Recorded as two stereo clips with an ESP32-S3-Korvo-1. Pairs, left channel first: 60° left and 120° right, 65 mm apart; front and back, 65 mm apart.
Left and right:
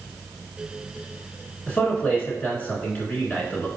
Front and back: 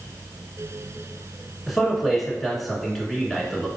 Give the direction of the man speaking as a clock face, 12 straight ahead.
9 o'clock.